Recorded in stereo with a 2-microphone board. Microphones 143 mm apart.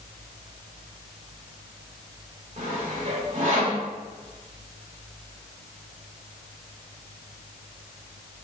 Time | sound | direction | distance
2.6 | sawing | 50° right (ahead or behind) | 1.6 m